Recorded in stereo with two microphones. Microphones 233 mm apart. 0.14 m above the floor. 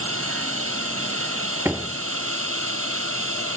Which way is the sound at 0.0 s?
70° right (ahead or behind).